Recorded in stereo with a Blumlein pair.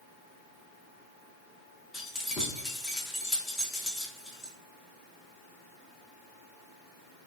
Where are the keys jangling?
10° left, 0.7 m.